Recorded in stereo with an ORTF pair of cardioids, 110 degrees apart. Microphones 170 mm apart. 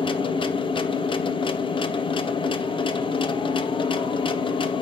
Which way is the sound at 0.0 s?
30° left.